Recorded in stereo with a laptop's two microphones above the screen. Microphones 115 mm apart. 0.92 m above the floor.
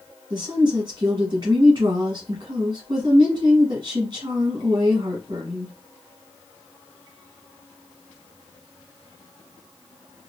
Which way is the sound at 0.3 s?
40° right (ahead or behind).